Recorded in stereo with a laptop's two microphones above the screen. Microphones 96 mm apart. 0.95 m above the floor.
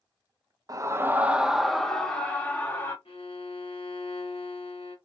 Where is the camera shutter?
I don't hear a camera shutter.